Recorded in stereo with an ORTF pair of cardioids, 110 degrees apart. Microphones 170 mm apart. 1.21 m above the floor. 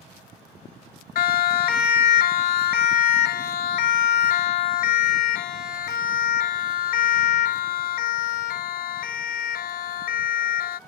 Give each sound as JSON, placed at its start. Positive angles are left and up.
{"t": 1.1, "sound": "a siren", "azimuth_deg": 65}